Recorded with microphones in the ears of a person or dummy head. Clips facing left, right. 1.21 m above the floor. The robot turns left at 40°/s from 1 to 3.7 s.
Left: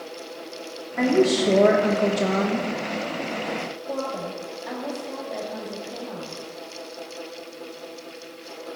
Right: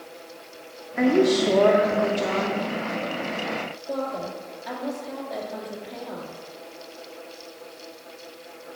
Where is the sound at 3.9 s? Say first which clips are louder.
Right 1 dB; 5° left (ahead or behind), 2 m.